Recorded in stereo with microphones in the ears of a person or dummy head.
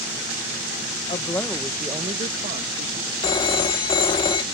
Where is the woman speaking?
25° left (ahead or behind); by 3.1 s 50° right (ahead or behind).